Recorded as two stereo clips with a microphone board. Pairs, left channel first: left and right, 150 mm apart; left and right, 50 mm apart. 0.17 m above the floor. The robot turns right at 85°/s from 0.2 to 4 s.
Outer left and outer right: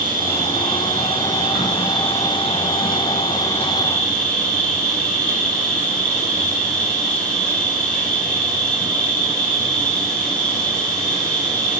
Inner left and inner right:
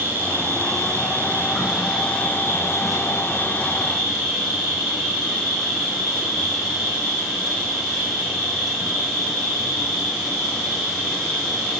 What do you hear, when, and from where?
0.0 s an insect: 150° right, 3 m; by 11.8 s 175° left, 3 m